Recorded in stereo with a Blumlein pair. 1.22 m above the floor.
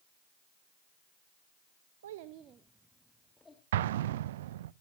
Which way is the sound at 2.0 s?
65° right.